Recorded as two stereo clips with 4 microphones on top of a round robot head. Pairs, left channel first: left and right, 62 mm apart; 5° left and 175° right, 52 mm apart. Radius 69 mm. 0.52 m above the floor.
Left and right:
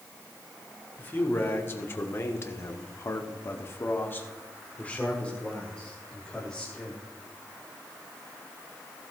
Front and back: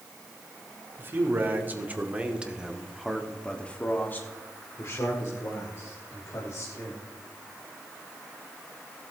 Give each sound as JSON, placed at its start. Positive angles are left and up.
{"t": 1.0, "sound": "a man speaking", "azimuth_deg": 145, "distance_m": 2.0}